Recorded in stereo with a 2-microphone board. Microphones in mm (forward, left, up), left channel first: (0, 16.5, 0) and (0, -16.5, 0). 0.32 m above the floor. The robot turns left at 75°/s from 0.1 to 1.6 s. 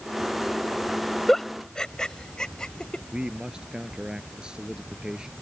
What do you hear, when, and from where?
1.3 s a giggle: 5° left (ahead or behind); by 3.0 s 25° left (ahead or behind)
3.1 s a man speaking: 25° right (ahead or behind)